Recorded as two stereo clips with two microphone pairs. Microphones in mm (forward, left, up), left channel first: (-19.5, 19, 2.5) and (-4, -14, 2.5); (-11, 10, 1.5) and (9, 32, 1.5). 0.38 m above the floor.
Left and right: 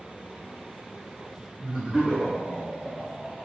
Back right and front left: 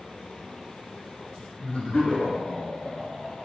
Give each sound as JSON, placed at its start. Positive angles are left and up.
{"t": 1.6, "sound": "laughter", "azimuth_deg": -120, "distance_m": 1.8}